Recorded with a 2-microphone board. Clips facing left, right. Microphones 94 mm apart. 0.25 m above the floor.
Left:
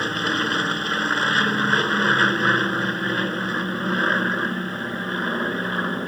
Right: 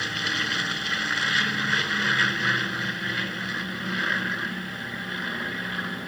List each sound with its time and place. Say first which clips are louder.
0.0 s an aircraft: left 6 dB; 45° left (ahead or behind)